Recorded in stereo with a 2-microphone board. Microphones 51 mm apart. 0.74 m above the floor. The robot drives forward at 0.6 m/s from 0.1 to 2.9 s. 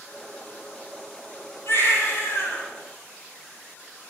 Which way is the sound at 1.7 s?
60° left (ahead or behind).